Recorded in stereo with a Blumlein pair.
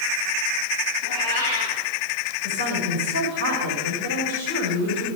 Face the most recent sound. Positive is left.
turn(degrees=60)